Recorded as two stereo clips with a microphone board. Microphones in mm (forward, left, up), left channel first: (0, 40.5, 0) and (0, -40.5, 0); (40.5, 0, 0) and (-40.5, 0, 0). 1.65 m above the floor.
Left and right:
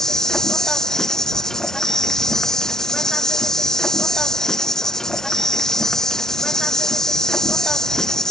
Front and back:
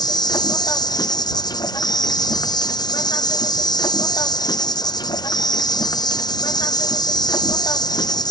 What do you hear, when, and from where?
0.0 s an insect: 5° left